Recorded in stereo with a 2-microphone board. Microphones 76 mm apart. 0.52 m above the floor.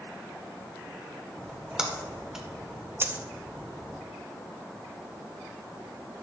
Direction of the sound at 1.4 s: 10° right (ahead or behind).